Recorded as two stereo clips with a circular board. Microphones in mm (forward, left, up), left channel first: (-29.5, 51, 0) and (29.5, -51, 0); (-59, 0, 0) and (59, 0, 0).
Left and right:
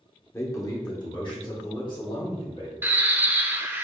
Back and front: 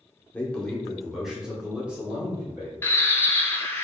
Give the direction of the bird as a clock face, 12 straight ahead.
4 o'clock.